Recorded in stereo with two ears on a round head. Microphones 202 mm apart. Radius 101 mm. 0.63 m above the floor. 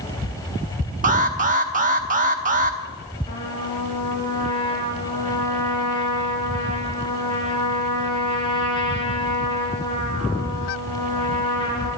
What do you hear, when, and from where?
1.0 s an alarm: 35° right (ahead or behind), 1.1 m
3.3 s a trumpet: 25° left (ahead or behind), 5 m